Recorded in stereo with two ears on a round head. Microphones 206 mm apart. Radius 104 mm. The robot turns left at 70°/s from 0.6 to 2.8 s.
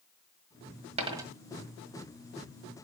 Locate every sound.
1.0 s a dropped coin: 30° right (ahead or behind), 1.5 m; by 1.3 s 10° right (ahead or behind), 1.5 m